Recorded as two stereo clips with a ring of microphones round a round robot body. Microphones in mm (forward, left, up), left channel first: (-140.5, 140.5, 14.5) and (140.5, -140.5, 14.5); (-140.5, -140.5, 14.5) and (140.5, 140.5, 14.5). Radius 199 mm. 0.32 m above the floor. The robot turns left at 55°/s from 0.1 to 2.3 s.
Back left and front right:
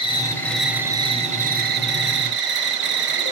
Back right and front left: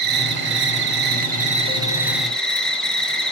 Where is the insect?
70° left, 1.7 m; by 3.3 s 50° right, 1.7 m.